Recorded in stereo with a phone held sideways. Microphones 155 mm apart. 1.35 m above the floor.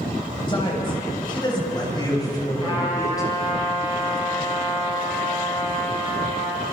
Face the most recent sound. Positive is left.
turn(degrees=35)  # may be behind; listen again after turning